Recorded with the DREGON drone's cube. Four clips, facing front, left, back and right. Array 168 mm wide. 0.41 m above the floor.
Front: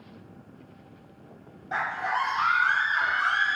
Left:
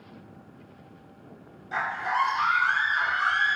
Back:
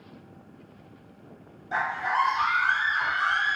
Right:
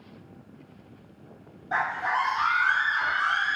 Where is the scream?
45° right, 1.9 m; by 3.6 s 15° right, 3 m.